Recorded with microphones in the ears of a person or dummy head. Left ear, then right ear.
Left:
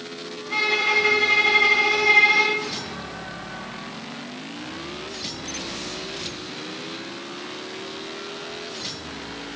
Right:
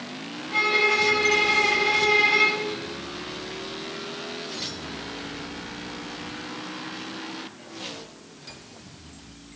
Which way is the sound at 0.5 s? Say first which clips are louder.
Even; 55° left (ahead or behind).